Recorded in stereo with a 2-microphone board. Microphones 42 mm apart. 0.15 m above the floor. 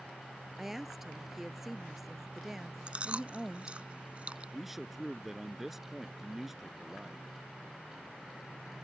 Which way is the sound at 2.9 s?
30° right (ahead or behind).